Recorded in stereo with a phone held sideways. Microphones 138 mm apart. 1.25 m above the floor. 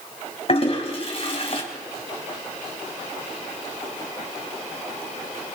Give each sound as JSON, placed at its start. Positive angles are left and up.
{"t": 0.5, "sound": "a toilet flushing", "side_deg": 45, "distance_m": 4.0}